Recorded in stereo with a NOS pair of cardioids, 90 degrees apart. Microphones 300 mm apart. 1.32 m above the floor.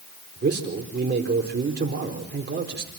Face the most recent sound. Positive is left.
turn(degrees=-35)